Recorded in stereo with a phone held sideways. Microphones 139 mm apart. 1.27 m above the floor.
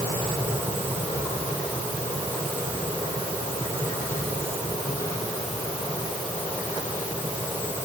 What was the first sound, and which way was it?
Only background noise.